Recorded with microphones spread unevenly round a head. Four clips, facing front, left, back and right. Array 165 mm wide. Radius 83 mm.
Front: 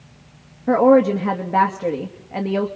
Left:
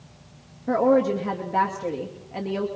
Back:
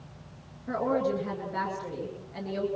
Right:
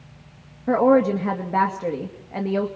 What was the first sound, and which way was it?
A woman speaking, 25° right.